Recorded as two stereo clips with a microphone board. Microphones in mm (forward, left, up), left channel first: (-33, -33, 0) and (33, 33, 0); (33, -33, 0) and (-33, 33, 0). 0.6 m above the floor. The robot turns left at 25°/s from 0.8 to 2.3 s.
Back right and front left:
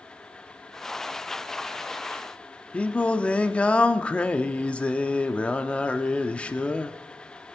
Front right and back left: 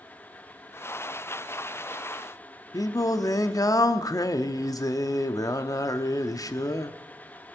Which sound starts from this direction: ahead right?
Singing, at 2.7 s.